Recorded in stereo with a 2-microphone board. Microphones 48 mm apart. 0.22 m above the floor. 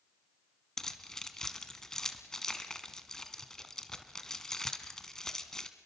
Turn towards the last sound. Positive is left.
turn(degrees=15)  # may be behind; listen again after turning